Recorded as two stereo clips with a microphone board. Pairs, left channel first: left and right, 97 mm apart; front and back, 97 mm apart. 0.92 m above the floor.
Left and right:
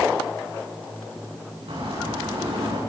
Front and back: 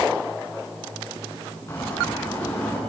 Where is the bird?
60° right, 8.5 m.